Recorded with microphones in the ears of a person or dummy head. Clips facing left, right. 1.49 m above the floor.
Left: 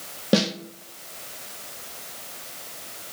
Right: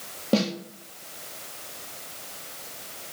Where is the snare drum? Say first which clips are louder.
Left 2 dB; 15° left (ahead or behind), 0.8 m.